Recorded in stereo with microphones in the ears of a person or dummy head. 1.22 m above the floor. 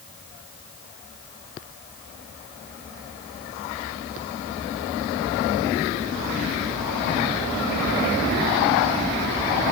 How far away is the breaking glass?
No breaking glass in this recording.